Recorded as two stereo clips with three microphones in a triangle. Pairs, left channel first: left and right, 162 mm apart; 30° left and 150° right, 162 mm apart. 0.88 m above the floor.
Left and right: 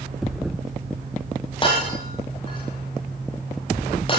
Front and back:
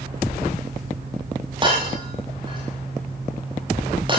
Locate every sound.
1.6 s breaking glass: 150° left, 7.5 m